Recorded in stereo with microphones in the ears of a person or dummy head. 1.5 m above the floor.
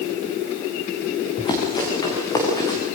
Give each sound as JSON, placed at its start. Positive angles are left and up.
{"t": 1.4, "sound": "running footsteps", "side_deg": 25, "distance_m": 7.0}